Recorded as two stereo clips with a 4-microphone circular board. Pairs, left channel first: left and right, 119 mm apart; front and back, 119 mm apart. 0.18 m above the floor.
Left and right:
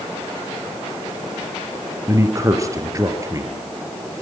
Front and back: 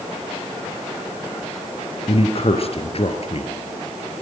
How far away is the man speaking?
About 4 m.